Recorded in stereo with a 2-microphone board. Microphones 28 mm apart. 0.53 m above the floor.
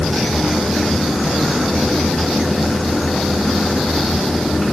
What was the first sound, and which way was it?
Only background noise.